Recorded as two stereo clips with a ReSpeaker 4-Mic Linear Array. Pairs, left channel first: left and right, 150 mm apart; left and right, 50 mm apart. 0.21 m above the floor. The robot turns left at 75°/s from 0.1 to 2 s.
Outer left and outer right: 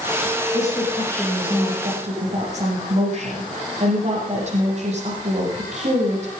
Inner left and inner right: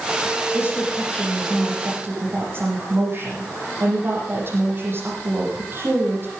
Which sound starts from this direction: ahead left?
A woman speaking, at 0.5 s.